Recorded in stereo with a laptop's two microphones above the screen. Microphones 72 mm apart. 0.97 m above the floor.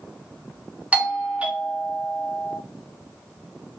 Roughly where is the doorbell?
Centre.